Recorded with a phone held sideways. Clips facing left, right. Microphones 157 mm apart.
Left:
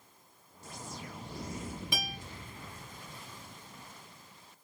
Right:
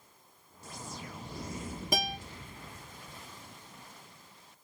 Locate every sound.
1.9 s a guitar: 45° right (ahead or behind), 0.9 m